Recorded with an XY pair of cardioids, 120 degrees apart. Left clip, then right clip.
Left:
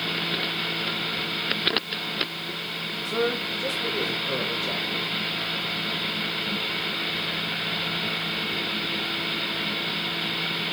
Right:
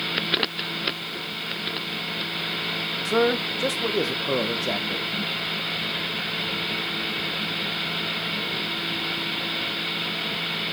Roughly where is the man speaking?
Ahead right.